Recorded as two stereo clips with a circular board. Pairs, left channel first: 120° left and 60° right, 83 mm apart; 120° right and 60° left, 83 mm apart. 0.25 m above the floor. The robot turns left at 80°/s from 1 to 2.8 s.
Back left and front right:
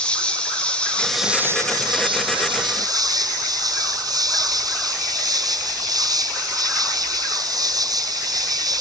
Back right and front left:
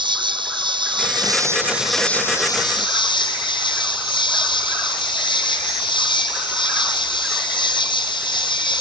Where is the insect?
45° left; by 8.8 s 100° right.